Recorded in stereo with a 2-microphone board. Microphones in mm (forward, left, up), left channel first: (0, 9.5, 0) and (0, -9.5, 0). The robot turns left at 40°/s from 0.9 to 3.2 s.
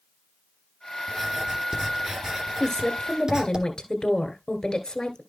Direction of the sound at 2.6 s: 30° left (ahead or behind).